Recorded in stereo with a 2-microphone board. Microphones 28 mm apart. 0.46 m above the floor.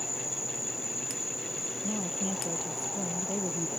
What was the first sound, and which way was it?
An insect, 5° right (ahead or behind).